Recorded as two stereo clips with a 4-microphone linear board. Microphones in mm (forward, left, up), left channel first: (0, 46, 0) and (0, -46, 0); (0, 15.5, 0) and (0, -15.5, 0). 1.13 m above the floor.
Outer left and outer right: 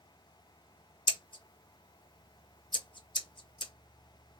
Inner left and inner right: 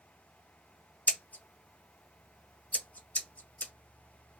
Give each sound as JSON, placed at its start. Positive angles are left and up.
{"t": 1.1, "sound": "scissors", "side_deg": 60, "distance_m": 0.6}